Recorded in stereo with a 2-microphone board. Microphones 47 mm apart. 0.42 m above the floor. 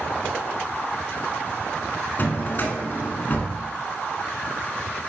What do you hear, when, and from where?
2.2 s a drawer: 40° left (ahead or behind), 1.3 m